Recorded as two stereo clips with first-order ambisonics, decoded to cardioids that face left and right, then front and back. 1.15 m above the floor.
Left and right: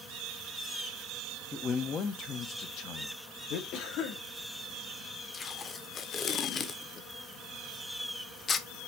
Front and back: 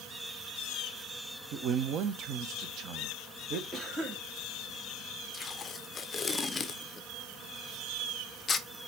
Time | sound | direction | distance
1.5 | a man speaking | 155° left | 0.9 m
3.7 | a cough | 110° left | 2.5 m
5.3 | tape being pulled | 50° left | 0.7 m